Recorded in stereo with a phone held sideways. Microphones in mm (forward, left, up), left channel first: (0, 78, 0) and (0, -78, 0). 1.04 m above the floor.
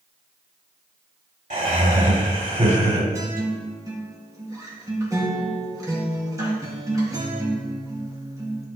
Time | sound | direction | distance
1.5 | laughter | 55° right (ahead or behind) | 3.5 m
3.1 | a guitar | 20° right (ahead or behind) | 2 m